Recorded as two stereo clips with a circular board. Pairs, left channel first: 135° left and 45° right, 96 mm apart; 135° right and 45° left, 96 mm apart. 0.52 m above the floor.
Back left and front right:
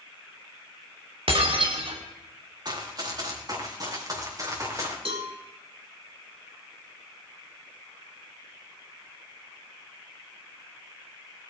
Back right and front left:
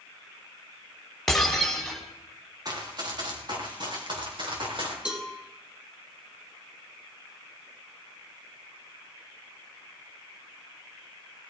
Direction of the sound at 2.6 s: Straight ahead.